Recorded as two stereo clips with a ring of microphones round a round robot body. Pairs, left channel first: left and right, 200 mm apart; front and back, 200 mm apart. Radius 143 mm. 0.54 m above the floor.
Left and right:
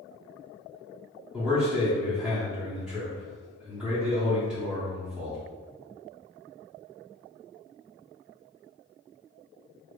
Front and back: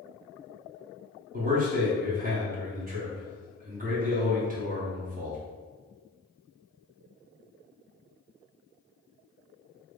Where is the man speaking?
175° right, 0.9 m.